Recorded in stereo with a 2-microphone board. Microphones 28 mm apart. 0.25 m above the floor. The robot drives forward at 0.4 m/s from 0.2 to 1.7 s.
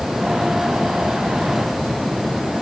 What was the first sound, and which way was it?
Only background noise.